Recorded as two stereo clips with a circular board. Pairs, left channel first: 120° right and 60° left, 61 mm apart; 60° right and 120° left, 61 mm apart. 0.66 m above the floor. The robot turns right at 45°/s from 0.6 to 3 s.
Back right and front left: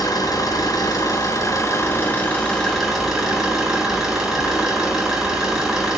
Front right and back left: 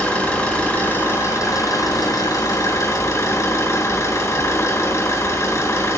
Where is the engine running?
130° right, 5 m; by 6.0 s 25° right, 5 m.